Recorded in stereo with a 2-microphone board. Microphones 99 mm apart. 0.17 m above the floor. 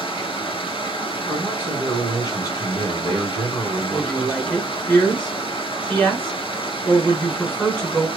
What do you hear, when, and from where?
0.0 s running water: 65° left (ahead or behind), 0.9 m
1.3 s a man speaking: 40° left (ahead or behind), 1.8 m
3.9 s a woman speaking: 5° left (ahead or behind), 1.2 m